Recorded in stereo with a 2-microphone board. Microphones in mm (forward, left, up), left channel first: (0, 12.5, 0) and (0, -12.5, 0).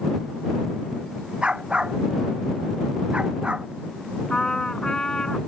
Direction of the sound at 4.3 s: 25° left (ahead or behind).